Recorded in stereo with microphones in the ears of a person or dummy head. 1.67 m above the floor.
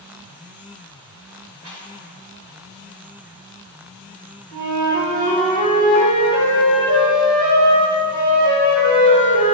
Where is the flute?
45° right (ahead or behind), 1.9 m.